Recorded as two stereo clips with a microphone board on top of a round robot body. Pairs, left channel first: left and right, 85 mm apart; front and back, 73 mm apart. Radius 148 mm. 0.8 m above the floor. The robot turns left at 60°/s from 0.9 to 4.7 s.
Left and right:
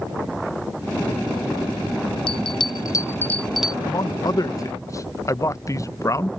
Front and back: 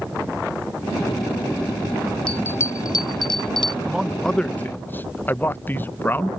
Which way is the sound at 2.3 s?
80° left.